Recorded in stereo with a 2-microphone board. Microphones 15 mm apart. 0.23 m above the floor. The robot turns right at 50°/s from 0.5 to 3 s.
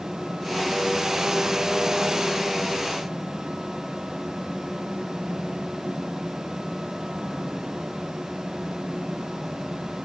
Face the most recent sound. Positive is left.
No sound to turn to.